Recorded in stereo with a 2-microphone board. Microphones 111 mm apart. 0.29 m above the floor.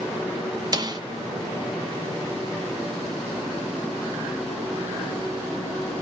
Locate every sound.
0.7 s a snare drum: 35° right (ahead or behind), 1.5 m